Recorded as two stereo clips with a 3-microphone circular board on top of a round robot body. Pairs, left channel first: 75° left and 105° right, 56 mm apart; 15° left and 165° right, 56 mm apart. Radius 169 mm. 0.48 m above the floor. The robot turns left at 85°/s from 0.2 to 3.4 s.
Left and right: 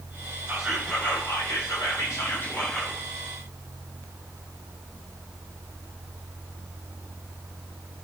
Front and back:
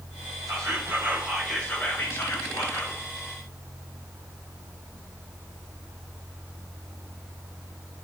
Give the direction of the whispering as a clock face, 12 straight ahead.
6 o'clock.